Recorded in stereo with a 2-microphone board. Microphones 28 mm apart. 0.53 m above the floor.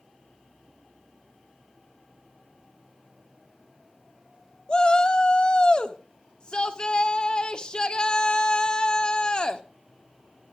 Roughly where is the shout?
Left.